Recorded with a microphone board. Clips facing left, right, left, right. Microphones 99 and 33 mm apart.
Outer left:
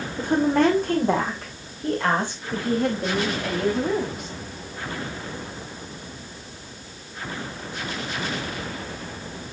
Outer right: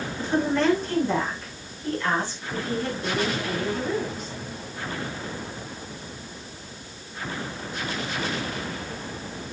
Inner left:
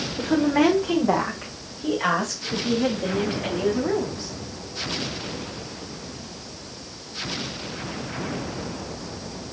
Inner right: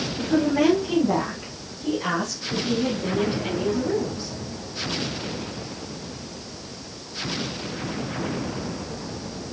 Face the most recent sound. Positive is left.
turn(degrees=60)  # may be behind; listen again after turning